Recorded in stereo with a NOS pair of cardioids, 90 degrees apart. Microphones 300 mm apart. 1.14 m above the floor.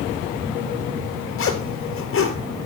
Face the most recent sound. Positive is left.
turn(degrees=45)